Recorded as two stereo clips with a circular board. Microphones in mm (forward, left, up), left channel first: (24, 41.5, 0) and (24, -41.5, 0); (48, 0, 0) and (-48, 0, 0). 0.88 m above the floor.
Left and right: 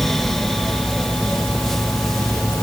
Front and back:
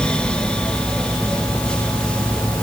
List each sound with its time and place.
Only background noise.